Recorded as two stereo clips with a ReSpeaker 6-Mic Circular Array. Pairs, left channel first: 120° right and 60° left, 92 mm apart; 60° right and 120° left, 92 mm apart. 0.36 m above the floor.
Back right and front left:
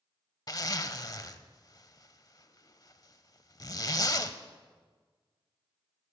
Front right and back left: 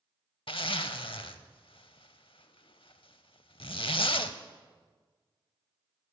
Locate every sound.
0.5 s a zipper: 75° right, 0.6 m